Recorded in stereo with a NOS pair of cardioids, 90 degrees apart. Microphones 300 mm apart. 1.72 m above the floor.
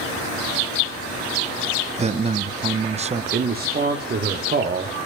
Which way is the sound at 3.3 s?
35° right.